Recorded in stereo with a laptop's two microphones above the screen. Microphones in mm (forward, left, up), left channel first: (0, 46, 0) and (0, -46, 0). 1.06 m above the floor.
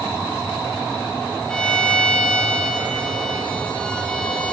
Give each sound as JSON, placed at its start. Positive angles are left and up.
{"t": 1.5, "sound": "a violin", "side_deg": 10, "distance_m": 1.3}